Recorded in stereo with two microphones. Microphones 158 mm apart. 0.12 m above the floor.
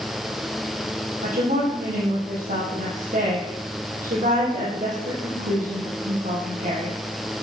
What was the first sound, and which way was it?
A woman speaking, 60° right (ahead or behind).